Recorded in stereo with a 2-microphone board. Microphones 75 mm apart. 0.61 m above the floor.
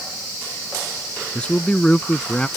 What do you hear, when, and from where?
1.4 s a man speaking: 15° left (ahead or behind)